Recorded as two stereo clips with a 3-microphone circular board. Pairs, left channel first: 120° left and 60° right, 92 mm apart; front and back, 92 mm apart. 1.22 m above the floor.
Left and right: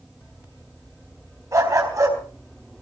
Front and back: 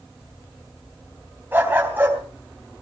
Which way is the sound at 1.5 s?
110° right.